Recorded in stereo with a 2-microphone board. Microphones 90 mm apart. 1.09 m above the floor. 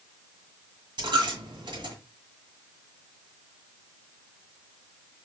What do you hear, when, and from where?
1.0 s a dropped coin: 60° right (ahead or behind), 1.8 m